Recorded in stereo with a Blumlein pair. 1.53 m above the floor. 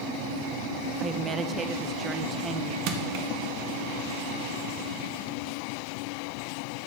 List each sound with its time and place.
1.0 s a woman speaking: 20° right, 1.1 m
2.9 s crushing: 45° right, 1.6 m